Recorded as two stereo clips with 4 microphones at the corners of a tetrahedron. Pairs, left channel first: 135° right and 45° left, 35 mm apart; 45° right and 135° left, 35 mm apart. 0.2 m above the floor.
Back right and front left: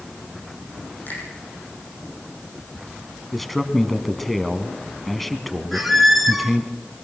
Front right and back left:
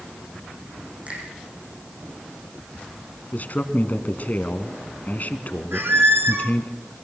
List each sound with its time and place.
1.1 s a finger snap: 170° right, 7.5 m
3.3 s a man speaking: 55° right, 1.5 m
5.7 s a squeak: 135° left, 2.0 m